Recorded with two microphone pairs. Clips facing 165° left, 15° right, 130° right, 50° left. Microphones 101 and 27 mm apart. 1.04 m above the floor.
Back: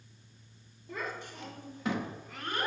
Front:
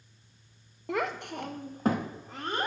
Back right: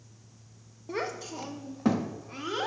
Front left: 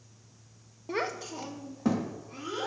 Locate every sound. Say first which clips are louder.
0.9 s a child speaking: front 8 dB, front left 1 dB; 15° right, 0.5 m; by 2.7 s 75° right, 1.2 m